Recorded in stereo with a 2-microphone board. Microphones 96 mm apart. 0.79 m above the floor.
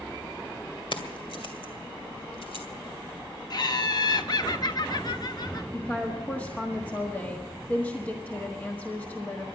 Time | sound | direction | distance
0.9 | keys jangling | 65° left (ahead or behind) | 2 m
3.5 | laughter | 45° left (ahead or behind) | 1.1 m
5.7 | a woman speaking | 15° left (ahead or behind) | 1.5 m